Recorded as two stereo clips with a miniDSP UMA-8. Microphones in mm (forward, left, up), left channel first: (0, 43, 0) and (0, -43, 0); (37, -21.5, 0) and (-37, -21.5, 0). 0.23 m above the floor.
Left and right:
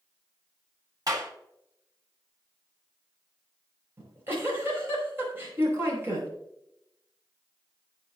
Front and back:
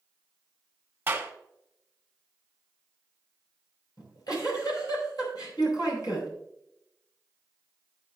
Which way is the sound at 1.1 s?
120° right.